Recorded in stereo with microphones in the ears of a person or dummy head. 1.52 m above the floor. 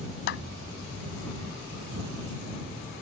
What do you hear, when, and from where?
0.3 s a clap: 65° left (ahead or behind)